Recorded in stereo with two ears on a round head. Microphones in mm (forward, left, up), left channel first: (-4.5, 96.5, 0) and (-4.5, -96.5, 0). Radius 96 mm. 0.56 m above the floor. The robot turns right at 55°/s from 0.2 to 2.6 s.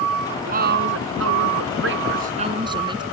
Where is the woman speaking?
145° right; by 3.0 s 25° right.